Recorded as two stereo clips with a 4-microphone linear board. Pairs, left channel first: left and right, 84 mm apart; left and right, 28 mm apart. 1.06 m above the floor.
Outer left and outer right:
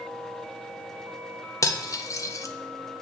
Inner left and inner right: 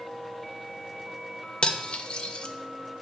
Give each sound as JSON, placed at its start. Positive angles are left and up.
{"t": 1.6, "sound": "cutlery clinking", "side_deg": 40, "distance_m": 0.6}